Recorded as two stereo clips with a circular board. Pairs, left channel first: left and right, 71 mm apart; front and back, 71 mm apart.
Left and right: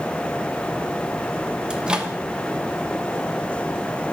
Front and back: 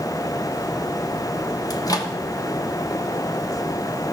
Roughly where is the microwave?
Ahead.